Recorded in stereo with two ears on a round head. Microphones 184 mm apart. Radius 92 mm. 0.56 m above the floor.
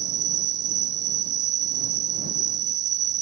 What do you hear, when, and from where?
0.0 s an insect: 75° right (ahead or behind)